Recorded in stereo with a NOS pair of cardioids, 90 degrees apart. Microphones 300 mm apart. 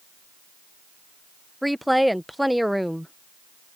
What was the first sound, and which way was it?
A woman speaking, straight ahead.